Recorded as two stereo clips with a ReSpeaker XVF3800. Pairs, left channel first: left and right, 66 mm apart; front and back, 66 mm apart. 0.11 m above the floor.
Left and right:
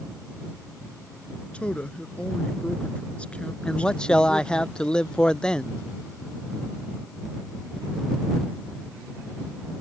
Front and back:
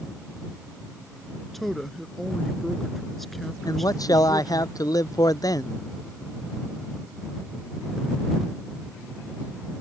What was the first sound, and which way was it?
A woman speaking, 80° left.